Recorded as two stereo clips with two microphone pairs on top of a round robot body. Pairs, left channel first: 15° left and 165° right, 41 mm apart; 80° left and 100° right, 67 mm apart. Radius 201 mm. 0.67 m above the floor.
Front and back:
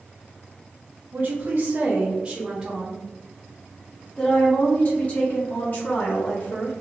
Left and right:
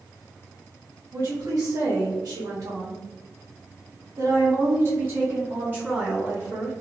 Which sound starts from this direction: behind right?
A woman speaking, at 1.1 s.